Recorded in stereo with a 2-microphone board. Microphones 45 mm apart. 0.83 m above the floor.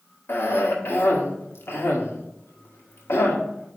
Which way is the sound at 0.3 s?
70° left (ahead or behind).